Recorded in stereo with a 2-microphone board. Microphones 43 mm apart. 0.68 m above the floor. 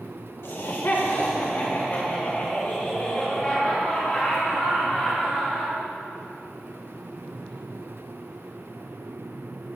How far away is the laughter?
About 1.8 m.